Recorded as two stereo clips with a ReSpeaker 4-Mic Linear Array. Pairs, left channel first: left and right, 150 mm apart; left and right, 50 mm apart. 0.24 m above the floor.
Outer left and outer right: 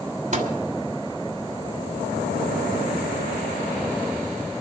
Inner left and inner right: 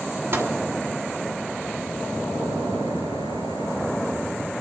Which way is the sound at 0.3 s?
55° right (ahead or behind).